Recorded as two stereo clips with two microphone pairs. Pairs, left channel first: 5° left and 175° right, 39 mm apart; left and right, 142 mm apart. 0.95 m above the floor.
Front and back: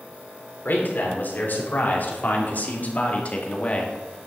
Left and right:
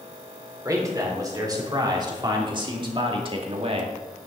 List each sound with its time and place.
0.7 s a man speaking: 25° right, 3.5 m; by 4.0 s 55° right, 1.8 m